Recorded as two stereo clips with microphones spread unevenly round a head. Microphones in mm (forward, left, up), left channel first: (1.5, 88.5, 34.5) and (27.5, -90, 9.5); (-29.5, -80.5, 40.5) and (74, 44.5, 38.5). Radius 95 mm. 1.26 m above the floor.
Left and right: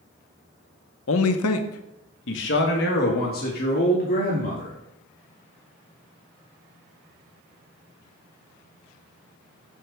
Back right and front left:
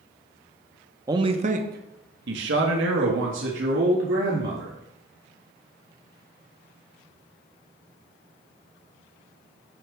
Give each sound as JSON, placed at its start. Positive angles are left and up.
{"t": 1.1, "sound": "a man speaking", "azimuth_deg": 125, "distance_m": 0.7}